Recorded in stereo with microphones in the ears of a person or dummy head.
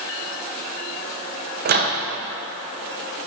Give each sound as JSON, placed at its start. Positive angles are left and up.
{"t": 1.6, "sound": "a microwave", "side_deg": -50, "distance_m": 0.7}